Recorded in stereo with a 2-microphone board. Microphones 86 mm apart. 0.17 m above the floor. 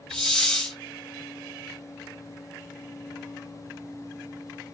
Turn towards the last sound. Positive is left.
turn(degrees=10)  # may be behind; listen again after turning